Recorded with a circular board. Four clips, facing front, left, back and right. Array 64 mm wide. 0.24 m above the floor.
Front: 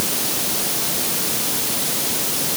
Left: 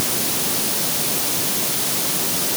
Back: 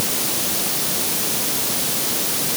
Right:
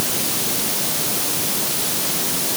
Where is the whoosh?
I don't hear a whoosh.